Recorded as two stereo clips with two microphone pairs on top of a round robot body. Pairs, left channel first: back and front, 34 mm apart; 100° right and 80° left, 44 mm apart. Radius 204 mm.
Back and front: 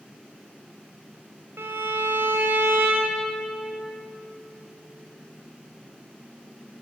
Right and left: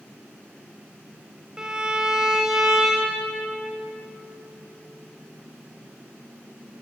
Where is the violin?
5° left, 3 m.